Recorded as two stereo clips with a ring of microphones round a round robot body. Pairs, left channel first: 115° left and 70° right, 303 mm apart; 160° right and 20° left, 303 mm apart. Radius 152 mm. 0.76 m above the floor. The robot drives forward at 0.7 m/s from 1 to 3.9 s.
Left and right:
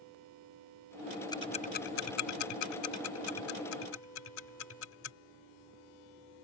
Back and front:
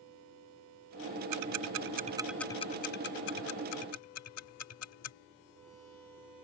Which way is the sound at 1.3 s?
35° left.